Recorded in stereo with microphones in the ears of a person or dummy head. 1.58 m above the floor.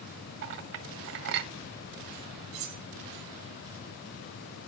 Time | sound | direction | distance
0.4 | a clink | 55° right (ahead or behind) | 1.1 m
2.5 | cutlery clinking | 30° right (ahead or behind) | 0.8 m